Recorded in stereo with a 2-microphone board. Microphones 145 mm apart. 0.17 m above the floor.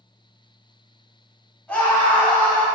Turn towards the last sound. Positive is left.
turn(degrees=10)  # may be behind; listen again after turning